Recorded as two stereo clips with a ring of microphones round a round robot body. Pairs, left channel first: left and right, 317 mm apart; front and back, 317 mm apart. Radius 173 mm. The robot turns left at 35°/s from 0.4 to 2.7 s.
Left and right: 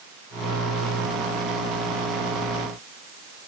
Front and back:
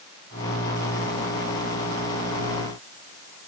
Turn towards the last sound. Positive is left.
No sound to turn to.